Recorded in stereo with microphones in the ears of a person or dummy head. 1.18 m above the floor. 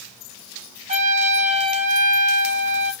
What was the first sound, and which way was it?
A trumpet, 35° right (ahead or behind).